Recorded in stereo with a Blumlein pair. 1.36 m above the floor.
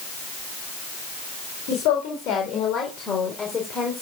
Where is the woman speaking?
45° left, 4 m; by 4.0 s 5° left, 4.5 m.